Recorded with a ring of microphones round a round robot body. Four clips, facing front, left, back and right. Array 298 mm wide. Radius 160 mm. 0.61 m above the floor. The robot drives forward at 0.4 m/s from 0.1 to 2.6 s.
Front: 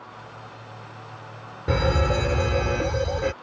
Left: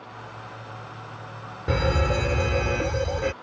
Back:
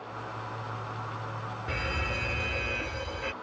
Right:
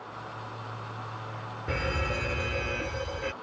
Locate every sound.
1.7 s a fire alarm: 30° left; by 3.3 s 35° left